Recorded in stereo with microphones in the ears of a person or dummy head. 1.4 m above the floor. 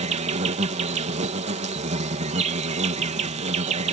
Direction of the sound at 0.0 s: 35° right (ahead or behind).